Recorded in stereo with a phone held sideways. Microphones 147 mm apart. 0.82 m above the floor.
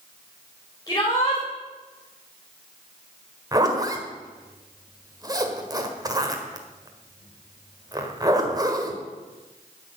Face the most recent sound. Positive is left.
turn(degrees=-25)  # may be behind; listen again after turning